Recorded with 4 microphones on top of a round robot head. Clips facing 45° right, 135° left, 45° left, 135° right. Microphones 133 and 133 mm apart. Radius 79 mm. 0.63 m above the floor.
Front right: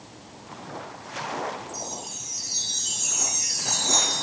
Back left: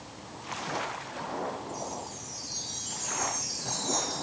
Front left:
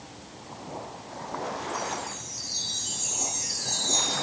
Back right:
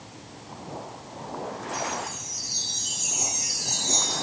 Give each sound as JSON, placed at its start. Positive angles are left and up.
{"t": 1.7, "sound": "a chime", "azimuth_deg": -60}